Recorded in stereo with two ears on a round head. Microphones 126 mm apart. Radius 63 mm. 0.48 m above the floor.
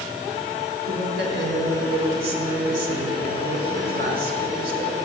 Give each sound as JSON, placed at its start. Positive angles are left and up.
{"t": 0.9, "sound": "a woman speaking", "side_deg": -70, "distance_m": 5.0}